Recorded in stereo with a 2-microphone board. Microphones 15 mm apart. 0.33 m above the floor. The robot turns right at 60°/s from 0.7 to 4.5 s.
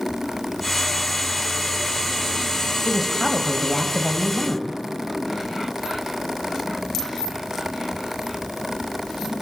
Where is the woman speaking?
20° right, 1.5 m; by 4.8 s 75° left, 1.5 m.